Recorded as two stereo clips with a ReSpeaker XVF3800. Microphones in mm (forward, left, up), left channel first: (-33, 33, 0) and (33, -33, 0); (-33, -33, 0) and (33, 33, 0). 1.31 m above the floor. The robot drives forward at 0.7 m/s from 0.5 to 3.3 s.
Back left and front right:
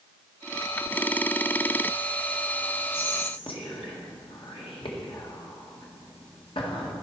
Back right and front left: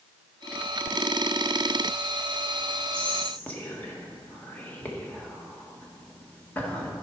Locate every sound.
2.9 s whispering: 150° left, 1.4 m; by 6.9 s 155° left, 1.6 m